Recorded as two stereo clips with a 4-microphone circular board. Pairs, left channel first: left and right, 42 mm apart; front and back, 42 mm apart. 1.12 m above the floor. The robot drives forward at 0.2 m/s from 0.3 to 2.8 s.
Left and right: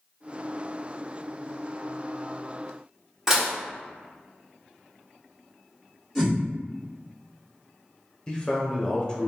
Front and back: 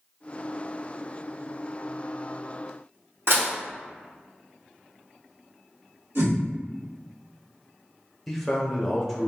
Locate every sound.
3.3 s dishes clattering: 170° right, 0.8 m
6.2 s a whoosh: 175° left, 1.2 m
8.3 s a man speaking: 80° left, 0.6 m